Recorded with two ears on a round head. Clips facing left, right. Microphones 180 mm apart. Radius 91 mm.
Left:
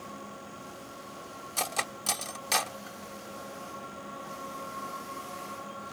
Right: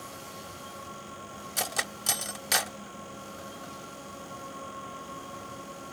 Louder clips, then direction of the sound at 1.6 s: Left 1 dB; 10° right (ahead or behind).